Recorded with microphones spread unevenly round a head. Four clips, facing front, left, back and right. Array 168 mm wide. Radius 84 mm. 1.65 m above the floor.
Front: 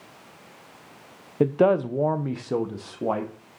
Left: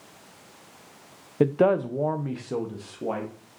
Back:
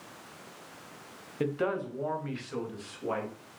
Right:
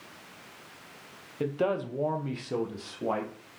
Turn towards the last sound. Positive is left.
turn(degrees=0)